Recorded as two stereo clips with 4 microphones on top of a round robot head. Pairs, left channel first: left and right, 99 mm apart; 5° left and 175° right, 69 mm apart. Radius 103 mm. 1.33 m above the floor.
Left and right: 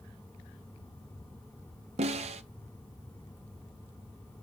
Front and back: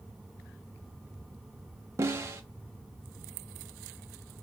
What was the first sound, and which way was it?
A snare drum, 115° right.